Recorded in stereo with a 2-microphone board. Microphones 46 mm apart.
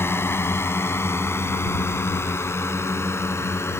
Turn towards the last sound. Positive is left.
turn(degrees=70)  # may be behind; listen again after turning